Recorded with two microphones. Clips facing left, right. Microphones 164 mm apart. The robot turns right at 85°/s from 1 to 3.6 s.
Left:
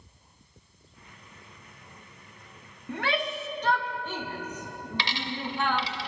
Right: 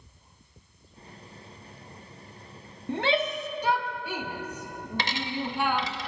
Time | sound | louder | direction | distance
2.9 | a shout | right 4 dB | 25° right (ahead or behind) | 0.6 m
5.0 | a dropped coin | right 3 dB | 45° right (ahead or behind) | 0.6 m